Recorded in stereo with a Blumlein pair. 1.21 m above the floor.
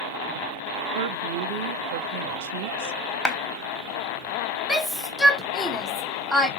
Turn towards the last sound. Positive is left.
turn(degrees=5)